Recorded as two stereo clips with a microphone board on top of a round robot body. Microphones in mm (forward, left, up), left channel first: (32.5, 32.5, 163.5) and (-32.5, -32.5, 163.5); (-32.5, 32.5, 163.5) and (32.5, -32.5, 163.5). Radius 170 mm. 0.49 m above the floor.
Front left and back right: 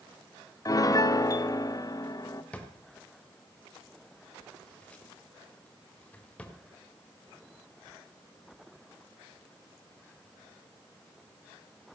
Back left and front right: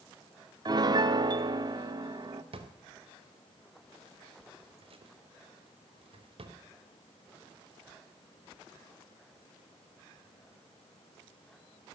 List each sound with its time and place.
0.7 s a piano: 5° right, 1.0 m
2.5 s a drawer: 30° right, 1.5 m